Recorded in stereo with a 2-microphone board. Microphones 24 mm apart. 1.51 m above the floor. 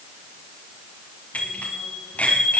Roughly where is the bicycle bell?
Left.